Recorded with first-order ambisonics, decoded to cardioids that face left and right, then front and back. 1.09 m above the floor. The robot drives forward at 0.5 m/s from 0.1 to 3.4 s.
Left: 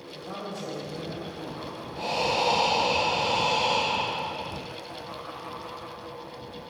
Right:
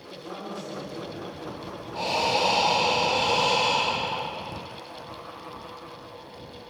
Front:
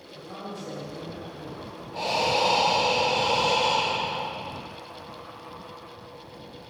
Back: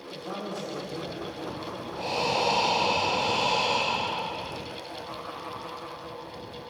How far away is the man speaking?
About 1.1 m.